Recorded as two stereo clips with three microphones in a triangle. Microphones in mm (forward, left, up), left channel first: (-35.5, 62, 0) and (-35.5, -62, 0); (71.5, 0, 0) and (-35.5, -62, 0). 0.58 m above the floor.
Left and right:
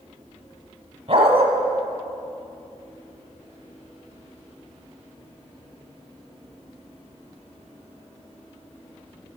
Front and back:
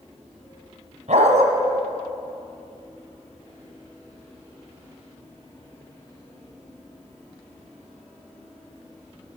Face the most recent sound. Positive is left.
turn(degrees=-130)